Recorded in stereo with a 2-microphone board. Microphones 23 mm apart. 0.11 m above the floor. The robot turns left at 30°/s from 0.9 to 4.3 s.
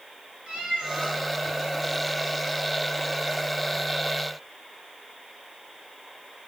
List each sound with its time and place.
0.5 s a cat meowing: 70° right (ahead or behind), 6.5 m; by 1.2 s 80° right, 6.5 m